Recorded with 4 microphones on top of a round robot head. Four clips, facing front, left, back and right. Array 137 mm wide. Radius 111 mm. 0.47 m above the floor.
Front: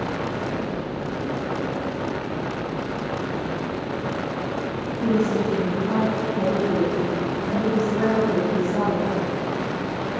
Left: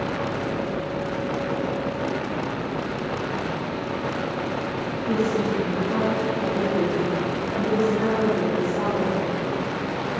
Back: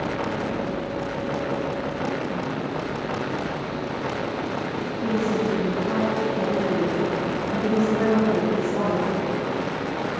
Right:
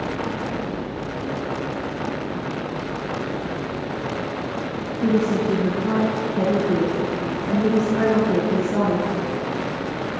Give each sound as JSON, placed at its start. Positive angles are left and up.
{"t": 5.0, "sound": "a woman speaking", "azimuth_deg": -80, "distance_m": 6.5}